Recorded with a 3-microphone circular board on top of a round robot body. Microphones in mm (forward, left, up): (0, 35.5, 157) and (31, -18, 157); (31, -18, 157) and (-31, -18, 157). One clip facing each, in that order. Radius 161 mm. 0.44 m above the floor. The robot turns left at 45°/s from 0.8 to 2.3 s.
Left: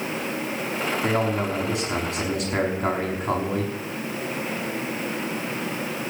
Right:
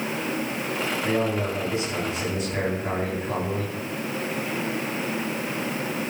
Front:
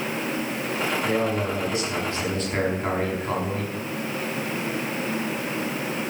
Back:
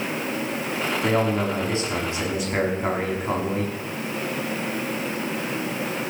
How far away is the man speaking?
About 6.5 m.